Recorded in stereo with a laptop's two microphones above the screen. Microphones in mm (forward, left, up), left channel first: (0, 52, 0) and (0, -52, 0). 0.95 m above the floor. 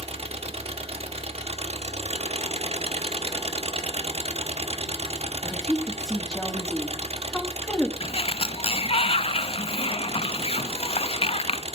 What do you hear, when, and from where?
0.0 s an engine running: 75° right (ahead or behind), 1.0 m
5.4 s a woman speaking: 5° left (ahead or behind), 2 m
8.0 s a sliding door: 65° left (ahead or behind), 0.5 m